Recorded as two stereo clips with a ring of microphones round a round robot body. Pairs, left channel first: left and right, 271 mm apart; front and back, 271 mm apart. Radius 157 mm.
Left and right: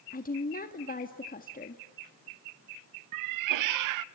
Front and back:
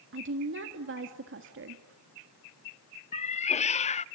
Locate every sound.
0.1 s a woman speaking: 145° left, 1.5 m
3.1 s a cat meowing: 70° right, 0.6 m